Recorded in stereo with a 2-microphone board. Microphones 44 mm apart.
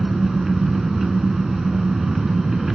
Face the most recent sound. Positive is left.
turn(degrees=-10)  # may be behind; listen again after turning